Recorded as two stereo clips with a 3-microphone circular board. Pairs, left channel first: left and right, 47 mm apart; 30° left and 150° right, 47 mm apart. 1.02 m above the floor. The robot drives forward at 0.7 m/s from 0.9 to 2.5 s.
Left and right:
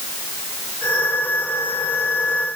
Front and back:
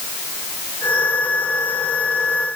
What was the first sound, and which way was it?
Only background noise.